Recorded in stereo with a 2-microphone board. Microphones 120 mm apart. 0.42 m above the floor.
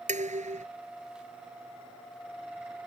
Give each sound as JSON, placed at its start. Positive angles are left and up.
{"t": 0.1, "sound": "dishes clattering", "side_deg": -80}